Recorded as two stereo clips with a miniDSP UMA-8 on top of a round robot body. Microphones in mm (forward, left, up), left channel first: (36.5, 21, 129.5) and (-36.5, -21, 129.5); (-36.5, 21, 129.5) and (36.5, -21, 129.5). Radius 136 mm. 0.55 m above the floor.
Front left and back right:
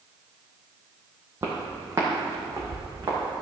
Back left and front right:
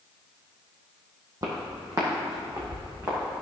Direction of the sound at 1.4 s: 85° right.